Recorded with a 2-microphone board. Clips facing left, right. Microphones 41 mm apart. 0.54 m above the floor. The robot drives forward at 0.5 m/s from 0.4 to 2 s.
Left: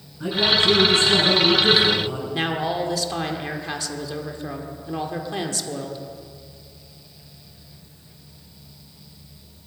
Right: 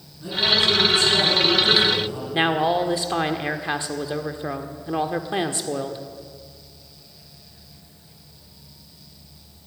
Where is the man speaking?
70° left (ahead or behind), 4.5 m; by 2.2 s 80° left, 4.5 m.